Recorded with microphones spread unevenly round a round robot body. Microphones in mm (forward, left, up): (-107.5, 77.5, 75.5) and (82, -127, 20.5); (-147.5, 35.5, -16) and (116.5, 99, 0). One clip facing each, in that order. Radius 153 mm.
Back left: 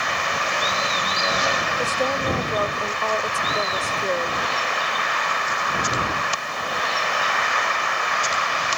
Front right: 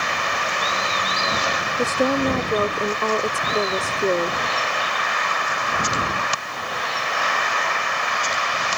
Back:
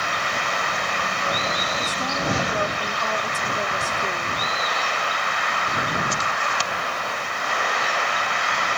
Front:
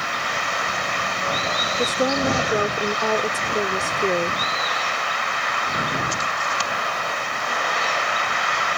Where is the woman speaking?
15° right.